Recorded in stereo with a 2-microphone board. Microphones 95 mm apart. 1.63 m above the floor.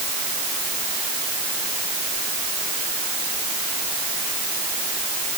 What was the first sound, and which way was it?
Only background noise.